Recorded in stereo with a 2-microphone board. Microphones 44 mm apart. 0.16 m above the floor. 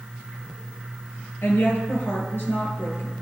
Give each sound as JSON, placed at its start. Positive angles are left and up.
{"t": 1.4, "sound": "a woman speaking", "side_deg": 60, "distance_m": 3.5}